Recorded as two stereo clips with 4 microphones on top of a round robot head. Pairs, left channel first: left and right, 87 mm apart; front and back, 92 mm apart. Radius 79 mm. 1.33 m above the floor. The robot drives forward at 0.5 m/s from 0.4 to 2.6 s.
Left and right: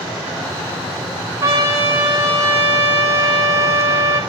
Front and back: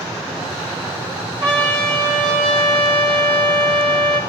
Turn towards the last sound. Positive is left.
turn(degrees=-150)